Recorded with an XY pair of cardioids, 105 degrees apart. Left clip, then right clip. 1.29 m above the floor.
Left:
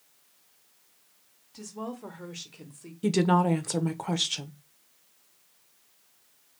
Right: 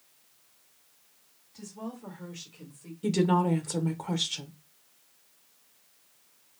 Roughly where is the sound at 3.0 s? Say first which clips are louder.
Left 2 dB; ahead left.